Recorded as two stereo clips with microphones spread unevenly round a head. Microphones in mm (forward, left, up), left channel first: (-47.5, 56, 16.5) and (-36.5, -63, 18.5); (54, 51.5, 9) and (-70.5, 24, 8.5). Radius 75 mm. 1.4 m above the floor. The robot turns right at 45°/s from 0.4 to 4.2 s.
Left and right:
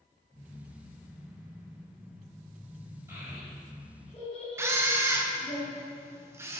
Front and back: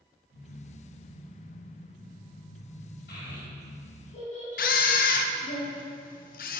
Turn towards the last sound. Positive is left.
turn(degrees=-10)